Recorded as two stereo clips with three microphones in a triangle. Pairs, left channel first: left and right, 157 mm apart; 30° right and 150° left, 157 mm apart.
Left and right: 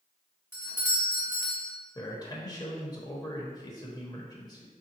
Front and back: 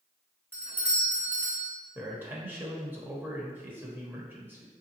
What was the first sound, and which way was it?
A doorbell, 150° right.